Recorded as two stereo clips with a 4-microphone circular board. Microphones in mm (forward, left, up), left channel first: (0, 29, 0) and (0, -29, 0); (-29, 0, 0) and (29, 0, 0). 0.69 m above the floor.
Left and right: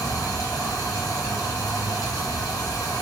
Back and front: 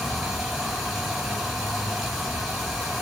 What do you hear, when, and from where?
0.0 s running water: 90° left, 2.5 m